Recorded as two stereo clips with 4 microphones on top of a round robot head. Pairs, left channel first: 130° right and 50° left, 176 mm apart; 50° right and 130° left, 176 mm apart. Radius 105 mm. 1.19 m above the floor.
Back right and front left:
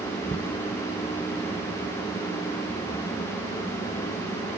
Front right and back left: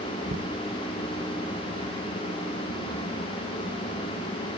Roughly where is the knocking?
Behind.